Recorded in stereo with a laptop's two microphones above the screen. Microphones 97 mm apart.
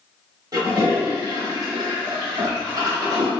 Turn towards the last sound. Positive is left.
turn(degrees=-40)  # may be behind; listen again after turning